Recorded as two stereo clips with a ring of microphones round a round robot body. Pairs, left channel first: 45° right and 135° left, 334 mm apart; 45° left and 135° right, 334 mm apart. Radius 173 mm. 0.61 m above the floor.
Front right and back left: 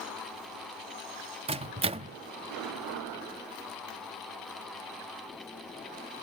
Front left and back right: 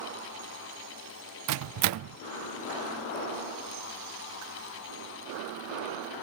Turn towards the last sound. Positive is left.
turn(degrees=-155)